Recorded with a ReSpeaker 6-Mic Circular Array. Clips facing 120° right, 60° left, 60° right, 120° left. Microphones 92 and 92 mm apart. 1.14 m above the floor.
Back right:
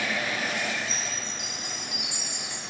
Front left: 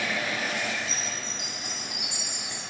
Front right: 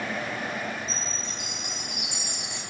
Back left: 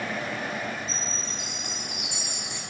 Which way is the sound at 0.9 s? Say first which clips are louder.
Even, even; 80° right.